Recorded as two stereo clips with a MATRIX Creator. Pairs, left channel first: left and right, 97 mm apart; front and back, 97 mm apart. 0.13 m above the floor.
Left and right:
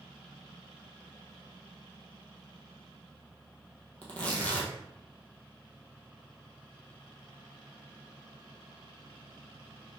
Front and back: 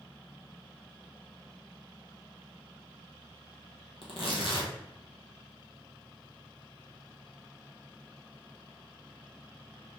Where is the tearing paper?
15° left, 1.2 m.